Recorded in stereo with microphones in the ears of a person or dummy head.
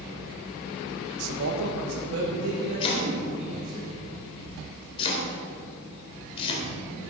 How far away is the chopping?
About 3.5 m.